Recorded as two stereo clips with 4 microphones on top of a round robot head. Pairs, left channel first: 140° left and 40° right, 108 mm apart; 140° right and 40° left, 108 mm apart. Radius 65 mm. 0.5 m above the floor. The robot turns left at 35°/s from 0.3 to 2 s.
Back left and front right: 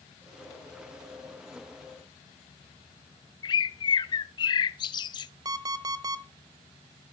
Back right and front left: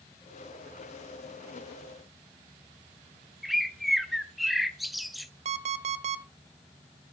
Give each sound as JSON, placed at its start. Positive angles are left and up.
{"t": 3.4, "sound": "a bird", "azimuth_deg": 130, "distance_m": 0.7}
{"t": 5.5, "sound": "an alarm clock", "azimuth_deg": 15, "distance_m": 0.8}